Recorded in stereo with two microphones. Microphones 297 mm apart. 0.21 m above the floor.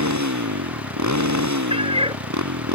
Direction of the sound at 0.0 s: 70° right (ahead or behind).